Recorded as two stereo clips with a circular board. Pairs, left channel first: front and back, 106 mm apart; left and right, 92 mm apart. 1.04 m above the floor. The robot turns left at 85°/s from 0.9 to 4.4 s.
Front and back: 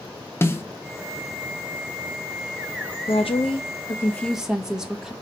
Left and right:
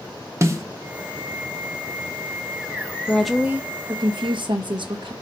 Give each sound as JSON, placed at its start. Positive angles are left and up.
{"t": 0.4, "sound": "a snare drum", "azimuth_deg": -55, "distance_m": 0.6}
{"t": 3.1, "sound": "a woman speaking", "azimuth_deg": 15, "distance_m": 0.9}